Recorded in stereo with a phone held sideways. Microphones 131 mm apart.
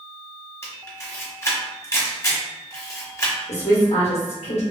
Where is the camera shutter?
25° left (ahead or behind), 0.9 m.